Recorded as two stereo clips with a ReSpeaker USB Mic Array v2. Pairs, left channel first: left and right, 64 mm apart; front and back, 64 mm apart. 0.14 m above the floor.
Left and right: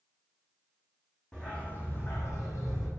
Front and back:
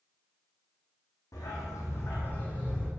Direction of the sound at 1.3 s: 15° left.